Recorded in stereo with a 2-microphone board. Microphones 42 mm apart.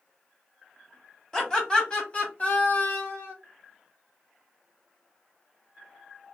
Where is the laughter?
10° left (ahead or behind), 1.3 m; by 3.3 s 50° left (ahead or behind), 1.5 m.